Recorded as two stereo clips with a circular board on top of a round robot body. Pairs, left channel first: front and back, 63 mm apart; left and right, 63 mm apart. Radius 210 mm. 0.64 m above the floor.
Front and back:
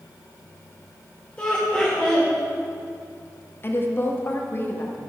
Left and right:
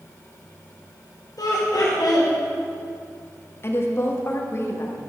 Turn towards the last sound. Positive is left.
turn(degrees=45)